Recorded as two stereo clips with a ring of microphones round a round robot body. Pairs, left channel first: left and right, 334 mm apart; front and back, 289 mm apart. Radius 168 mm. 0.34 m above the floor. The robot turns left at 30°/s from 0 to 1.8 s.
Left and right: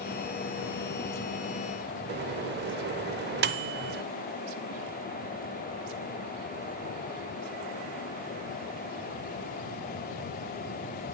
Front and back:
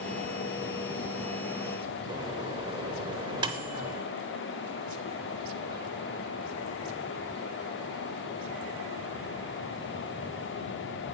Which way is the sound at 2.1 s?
120° right.